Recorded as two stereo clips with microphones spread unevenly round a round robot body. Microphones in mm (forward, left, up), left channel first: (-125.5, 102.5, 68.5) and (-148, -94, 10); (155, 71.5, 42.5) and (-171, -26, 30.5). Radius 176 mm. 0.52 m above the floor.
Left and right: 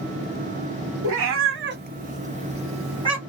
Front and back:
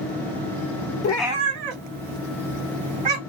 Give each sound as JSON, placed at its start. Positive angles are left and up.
{"t": 1.0, "sound": "a cat meowing", "azimuth_deg": -45, "distance_m": 0.5}